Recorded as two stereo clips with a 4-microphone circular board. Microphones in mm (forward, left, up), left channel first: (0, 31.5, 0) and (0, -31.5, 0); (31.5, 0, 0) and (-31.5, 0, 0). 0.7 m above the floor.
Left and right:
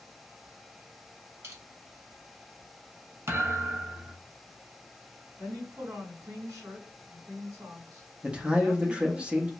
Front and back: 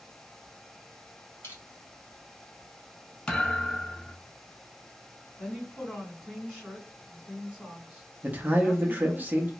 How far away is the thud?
About 0.8 m.